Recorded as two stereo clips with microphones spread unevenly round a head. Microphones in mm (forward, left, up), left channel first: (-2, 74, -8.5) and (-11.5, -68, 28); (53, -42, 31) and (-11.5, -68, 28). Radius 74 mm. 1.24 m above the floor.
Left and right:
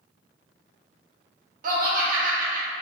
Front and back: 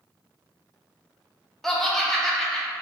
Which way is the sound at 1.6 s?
65° right.